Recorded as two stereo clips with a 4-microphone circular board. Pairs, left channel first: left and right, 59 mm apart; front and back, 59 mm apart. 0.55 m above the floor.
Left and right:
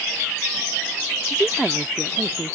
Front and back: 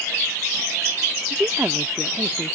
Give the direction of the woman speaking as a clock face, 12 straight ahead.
6 o'clock.